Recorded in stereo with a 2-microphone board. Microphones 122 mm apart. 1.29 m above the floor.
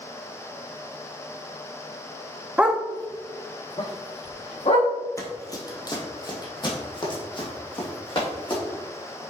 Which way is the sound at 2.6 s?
10° right (ahead or behind).